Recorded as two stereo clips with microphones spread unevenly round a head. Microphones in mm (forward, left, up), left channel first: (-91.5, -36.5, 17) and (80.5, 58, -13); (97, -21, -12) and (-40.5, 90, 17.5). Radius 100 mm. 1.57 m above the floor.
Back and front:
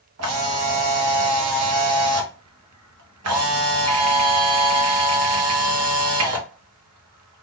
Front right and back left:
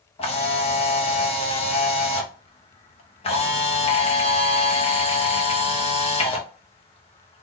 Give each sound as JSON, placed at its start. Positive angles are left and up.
{"t": 0.2, "sound": "a camera shutter", "azimuth_deg": 20, "distance_m": 0.9}